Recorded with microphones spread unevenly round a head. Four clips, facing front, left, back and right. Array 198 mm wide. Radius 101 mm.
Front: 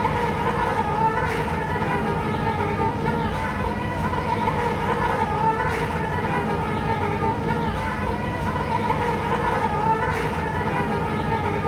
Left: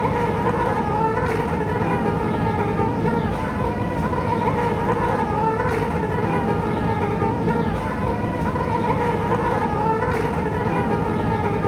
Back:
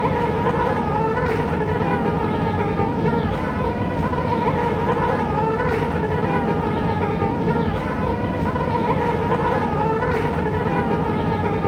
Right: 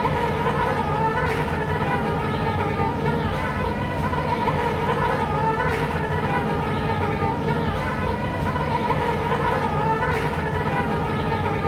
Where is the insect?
140° left, 1.2 m.